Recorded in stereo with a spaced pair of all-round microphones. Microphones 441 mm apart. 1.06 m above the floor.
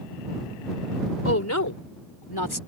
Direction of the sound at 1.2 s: 30° left (ahead or behind).